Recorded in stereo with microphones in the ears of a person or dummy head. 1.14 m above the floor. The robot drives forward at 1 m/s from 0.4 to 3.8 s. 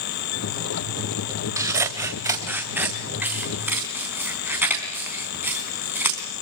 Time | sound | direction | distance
1.6 | scissors | 15° right (ahead or behind) | 1.9 m